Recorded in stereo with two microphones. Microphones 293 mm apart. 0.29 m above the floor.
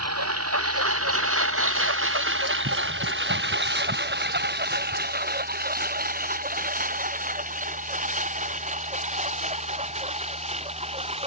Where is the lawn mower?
60° right (ahead or behind); by 11.3 s 20° right (ahead or behind).